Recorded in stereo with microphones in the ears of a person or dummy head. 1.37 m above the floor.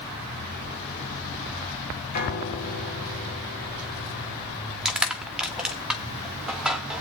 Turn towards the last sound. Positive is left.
turn(degrees=-5)  # may be behind; listen again after turning